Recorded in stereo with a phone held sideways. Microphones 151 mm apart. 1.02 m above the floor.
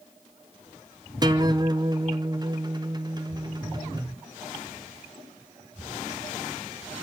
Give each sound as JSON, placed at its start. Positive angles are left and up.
{"t": 1.2, "sound": "a guitar", "side_deg": -30, "distance_m": 0.6}